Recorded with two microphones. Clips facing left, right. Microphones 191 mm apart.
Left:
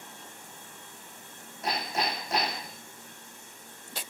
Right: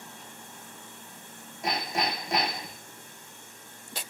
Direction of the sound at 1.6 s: 15° right (ahead or behind).